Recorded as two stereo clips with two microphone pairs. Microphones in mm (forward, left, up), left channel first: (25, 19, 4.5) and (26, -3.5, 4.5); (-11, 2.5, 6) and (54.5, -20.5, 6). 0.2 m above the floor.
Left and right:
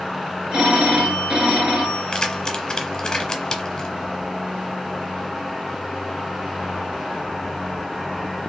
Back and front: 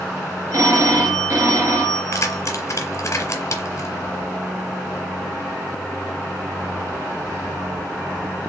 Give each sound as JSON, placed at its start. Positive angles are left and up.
{"t": 0.5, "sound": "a phone ringing", "azimuth_deg": -60, "distance_m": 1.8}
{"t": 2.1, "sound": "keys jangling", "azimuth_deg": 150, "distance_m": 1.1}